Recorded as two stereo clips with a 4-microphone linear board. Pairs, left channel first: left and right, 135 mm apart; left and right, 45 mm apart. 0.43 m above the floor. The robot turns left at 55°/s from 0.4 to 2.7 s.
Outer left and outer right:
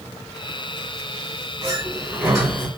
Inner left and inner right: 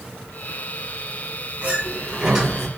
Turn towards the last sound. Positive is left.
turn(degrees=-170)